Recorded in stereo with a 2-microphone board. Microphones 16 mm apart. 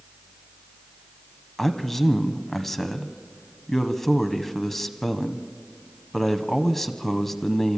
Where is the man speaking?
15° left (ahead or behind), 1.0 m.